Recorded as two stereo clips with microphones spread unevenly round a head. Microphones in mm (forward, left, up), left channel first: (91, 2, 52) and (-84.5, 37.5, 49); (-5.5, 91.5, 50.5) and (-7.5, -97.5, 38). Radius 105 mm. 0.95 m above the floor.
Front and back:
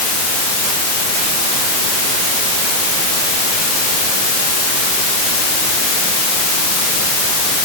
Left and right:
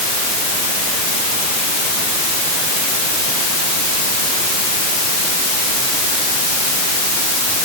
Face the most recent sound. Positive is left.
No sound to turn to.